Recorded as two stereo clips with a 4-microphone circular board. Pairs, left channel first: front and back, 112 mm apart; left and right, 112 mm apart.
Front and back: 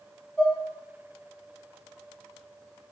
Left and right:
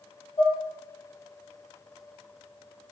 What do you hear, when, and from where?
0.4 s dishes clattering: 90° left, 1.5 m